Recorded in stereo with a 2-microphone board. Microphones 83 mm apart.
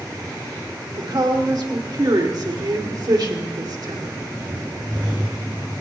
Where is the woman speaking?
65° right (ahead or behind), 2 m.